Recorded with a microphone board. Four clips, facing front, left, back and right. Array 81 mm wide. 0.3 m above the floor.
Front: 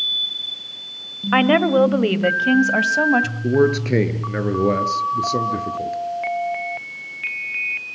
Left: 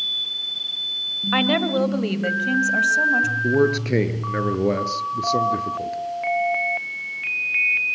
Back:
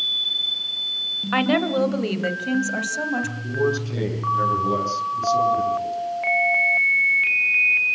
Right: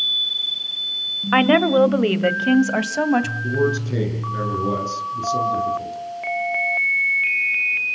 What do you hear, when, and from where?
1.3 s a woman speaking: 50° right, 1.6 m
3.4 s a man speaking: 40° left, 4.5 m